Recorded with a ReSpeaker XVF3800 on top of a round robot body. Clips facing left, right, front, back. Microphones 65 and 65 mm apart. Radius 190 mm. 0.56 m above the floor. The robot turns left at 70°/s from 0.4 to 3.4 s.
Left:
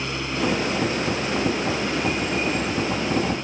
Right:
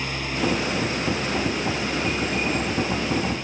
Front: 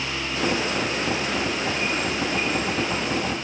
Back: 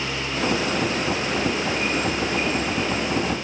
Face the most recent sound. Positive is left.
No sound to turn to.